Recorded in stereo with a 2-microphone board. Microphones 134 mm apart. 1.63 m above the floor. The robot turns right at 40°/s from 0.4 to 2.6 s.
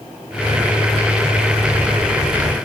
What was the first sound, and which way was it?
Only background noise.